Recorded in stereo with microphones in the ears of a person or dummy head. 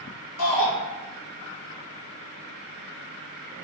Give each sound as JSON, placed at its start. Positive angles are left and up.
{"t": 0.4, "sound": "a shout", "side_deg": 75, "distance_m": 1.6}